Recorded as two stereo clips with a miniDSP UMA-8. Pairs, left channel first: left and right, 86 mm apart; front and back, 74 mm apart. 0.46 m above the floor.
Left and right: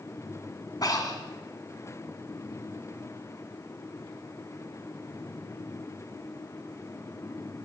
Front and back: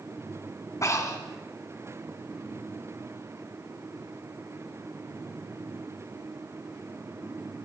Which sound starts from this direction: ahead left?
Breathing, at 0.8 s.